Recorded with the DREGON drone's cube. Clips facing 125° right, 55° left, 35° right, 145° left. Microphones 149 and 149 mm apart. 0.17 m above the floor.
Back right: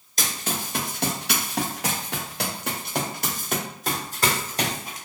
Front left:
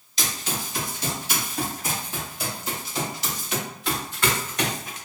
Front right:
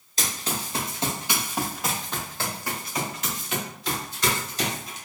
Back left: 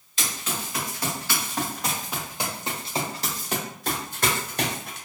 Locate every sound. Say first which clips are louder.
0.2 s running footsteps: back right 1 dB, front right 1 dB; 85° right, 1.5 m; by 5.0 s 175° left, 1.8 m